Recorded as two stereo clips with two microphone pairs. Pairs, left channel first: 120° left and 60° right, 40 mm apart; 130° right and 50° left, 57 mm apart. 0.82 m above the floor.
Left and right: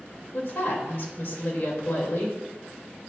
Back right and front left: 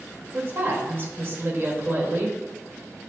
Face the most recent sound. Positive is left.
turn(degrees=95)